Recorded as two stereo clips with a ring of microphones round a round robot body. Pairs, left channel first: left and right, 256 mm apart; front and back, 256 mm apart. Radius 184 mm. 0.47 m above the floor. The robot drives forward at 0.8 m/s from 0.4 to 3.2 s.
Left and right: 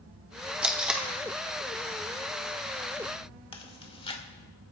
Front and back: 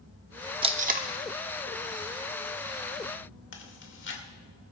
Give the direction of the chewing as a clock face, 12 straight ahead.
11 o'clock.